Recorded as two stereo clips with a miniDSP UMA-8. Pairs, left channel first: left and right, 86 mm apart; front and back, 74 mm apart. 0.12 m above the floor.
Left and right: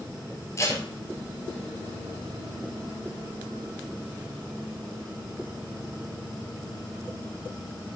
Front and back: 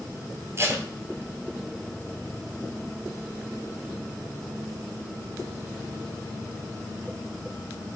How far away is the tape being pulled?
About 1.4 m.